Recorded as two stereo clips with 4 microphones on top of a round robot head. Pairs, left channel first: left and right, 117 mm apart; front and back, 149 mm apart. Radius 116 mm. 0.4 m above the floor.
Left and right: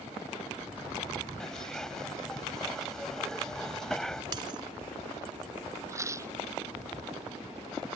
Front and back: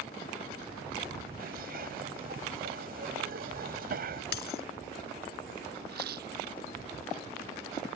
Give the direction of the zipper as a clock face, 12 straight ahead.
6 o'clock.